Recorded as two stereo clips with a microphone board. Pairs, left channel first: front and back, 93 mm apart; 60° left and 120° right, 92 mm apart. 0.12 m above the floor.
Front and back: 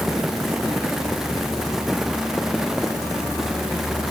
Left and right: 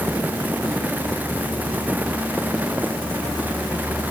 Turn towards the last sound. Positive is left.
No sound to turn to.